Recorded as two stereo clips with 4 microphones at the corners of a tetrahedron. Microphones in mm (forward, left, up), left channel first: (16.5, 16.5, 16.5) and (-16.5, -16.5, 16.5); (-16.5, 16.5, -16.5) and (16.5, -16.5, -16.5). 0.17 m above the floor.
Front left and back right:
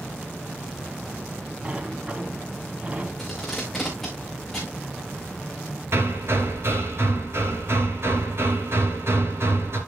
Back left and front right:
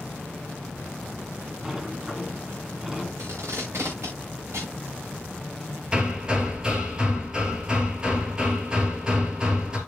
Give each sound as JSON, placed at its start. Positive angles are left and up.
{"t": 1.6, "sound": "a sliding door", "azimuth_deg": -120, "distance_m": 1.6}
{"t": 3.2, "sound": "tape being pulled", "azimuth_deg": -35, "distance_m": 4.5}
{"t": 5.9, "sound": "hammering", "azimuth_deg": -115, "distance_m": 3.0}